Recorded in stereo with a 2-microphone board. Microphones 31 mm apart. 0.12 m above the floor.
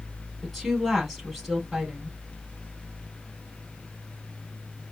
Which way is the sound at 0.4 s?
5° right (ahead or behind).